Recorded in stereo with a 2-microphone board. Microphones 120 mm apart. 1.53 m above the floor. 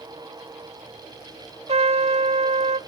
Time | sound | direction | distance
1.7 | a trumpet | 60° right (ahead or behind) | 0.6 m